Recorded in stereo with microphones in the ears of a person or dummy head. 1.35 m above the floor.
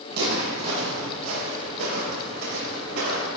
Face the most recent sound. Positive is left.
turn(degrees=-75)  # may be behind; listen again after turning